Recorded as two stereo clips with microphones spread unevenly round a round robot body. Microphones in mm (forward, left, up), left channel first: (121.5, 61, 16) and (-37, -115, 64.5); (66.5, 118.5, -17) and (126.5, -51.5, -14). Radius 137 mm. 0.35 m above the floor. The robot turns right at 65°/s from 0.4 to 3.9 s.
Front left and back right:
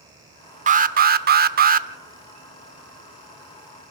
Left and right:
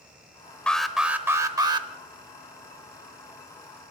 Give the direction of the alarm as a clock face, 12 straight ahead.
6 o'clock.